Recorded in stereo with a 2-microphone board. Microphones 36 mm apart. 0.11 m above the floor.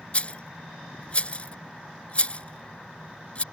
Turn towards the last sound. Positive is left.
turn(degrees=35)  # may be behind; listen again after turning